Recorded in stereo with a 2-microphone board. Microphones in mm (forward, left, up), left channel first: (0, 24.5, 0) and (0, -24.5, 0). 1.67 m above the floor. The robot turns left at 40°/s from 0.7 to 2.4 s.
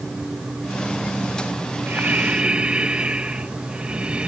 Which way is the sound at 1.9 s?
50° right (ahead or behind).